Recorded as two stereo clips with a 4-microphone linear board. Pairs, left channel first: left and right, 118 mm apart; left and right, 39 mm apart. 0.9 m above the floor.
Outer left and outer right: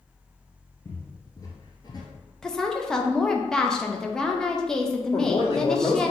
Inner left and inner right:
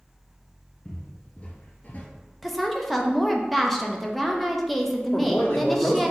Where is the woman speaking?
5° left (ahead or behind), 0.6 m.